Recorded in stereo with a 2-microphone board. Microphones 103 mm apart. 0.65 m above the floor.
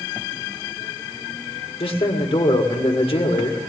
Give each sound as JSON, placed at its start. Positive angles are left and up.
{"t": 1.8, "sound": "a man speaking", "side_deg": 65, "distance_m": 1.8}